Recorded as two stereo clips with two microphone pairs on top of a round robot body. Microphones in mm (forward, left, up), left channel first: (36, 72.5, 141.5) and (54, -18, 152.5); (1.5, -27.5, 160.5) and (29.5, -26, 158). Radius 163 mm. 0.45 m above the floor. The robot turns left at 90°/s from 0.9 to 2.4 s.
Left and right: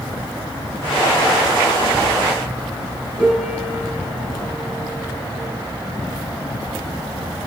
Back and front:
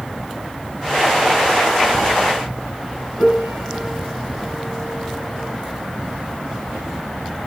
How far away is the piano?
About 5.5 m.